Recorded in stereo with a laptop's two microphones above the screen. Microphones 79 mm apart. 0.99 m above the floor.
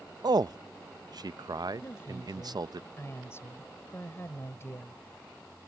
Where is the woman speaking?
35° left (ahead or behind).